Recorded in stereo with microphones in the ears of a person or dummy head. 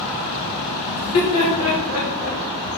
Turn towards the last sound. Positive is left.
turn(degrees=80)